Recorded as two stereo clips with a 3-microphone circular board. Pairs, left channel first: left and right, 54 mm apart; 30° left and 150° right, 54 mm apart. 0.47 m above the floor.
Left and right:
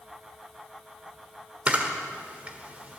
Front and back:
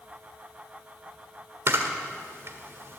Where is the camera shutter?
145° right, 1.5 m.